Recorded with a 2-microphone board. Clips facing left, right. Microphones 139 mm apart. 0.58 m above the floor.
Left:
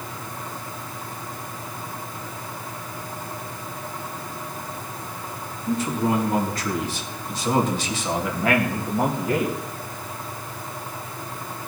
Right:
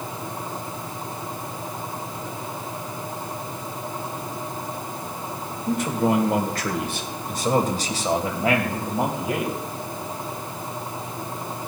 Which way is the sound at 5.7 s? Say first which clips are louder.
Right 1 dB; 75° right (ahead or behind).